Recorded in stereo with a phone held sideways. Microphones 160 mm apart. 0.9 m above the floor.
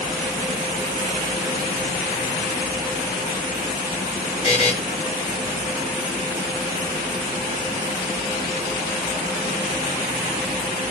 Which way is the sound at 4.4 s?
40° left (ahead or behind).